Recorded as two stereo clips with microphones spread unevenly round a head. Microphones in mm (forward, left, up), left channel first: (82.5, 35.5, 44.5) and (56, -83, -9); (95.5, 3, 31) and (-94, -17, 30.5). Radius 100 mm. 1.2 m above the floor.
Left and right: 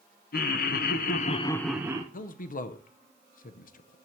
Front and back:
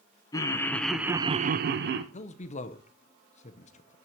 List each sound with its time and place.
0.3 s laughter: 80° left, 1.1 m; by 2.0 s 150° right, 0.8 m
2.1 s a man speaking: 55° left, 0.6 m